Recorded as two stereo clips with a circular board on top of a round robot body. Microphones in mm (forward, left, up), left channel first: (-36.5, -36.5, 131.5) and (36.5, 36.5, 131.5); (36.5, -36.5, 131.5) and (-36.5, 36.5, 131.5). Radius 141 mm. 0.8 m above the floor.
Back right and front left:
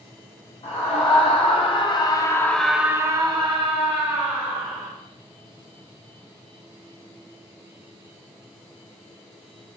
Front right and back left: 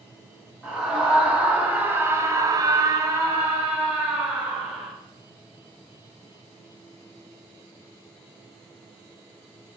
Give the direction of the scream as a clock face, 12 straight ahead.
5 o'clock.